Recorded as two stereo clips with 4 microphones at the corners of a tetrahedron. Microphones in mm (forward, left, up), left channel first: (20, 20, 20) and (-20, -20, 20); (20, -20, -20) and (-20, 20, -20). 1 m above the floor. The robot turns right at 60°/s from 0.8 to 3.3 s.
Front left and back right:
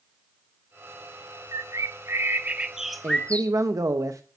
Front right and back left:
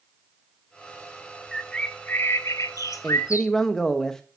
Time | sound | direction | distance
1.5 | a bird | 135° right | 0.6 m
3.0 | a man speaking | 140° right | 0.8 m